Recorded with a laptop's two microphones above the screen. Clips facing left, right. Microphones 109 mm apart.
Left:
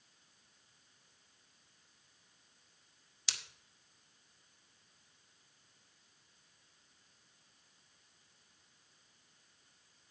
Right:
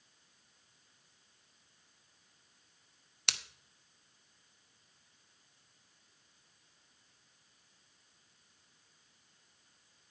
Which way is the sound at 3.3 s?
70° right (ahead or behind).